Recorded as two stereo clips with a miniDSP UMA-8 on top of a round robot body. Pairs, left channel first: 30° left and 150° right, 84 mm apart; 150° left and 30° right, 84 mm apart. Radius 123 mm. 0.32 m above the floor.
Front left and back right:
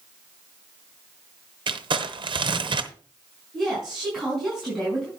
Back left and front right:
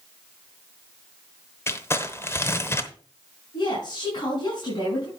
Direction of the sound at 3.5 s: 120° left.